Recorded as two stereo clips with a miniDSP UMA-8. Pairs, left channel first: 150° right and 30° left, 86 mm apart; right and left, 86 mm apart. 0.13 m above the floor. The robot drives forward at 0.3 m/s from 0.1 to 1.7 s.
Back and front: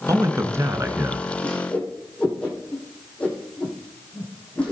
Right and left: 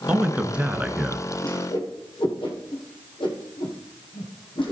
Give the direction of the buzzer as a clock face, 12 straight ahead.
No buzzer in this recording.